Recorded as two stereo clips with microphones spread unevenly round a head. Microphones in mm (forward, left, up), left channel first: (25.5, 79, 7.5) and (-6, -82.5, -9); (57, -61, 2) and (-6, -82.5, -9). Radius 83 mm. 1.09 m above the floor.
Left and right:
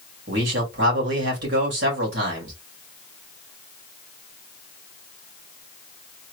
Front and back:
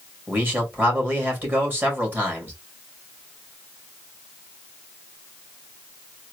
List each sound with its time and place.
0.3 s a man speaking: 105° right, 2 m